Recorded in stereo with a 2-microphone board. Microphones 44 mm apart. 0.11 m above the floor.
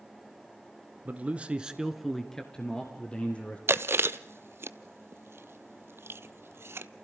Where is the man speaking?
35° right (ahead or behind), 1.8 m; by 3.6 s 30° left (ahead or behind), 3 m.